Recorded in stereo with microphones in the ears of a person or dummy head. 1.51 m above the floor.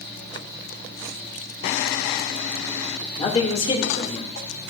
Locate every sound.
0.0 s a fan: 25° right (ahead or behind), 4.5 m
3.2 s a man speaking: 30° left (ahead or behind), 1.9 m